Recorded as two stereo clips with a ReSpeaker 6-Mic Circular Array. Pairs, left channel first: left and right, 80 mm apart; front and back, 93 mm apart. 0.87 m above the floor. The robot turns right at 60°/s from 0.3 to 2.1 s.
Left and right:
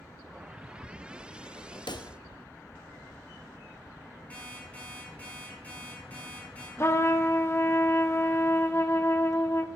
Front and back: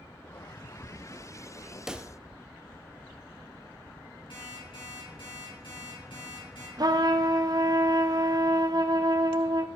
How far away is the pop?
About 0.5 m.